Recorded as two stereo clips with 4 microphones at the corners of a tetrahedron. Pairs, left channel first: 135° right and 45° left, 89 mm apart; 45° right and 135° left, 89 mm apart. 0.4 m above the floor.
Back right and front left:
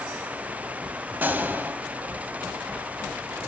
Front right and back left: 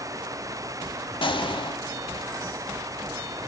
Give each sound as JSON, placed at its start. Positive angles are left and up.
{"t": 1.2, "sound": "a gunshot", "azimuth_deg": -25, "distance_m": 0.5}